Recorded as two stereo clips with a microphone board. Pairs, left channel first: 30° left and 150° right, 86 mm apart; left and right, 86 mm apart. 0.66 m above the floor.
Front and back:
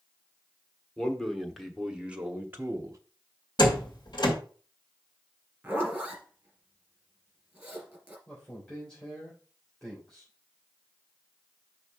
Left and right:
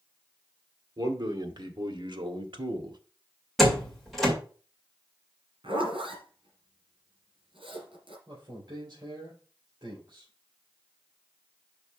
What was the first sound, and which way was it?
A man speaking, 55° right.